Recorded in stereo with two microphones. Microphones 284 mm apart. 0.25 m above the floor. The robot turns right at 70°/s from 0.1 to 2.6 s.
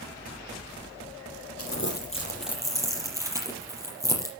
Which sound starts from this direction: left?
Crumpling, at 1.6 s.